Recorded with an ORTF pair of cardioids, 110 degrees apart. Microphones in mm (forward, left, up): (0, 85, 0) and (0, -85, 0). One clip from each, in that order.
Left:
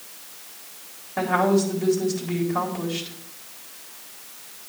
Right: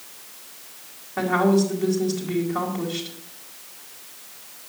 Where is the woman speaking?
Straight ahead, 3.5 m.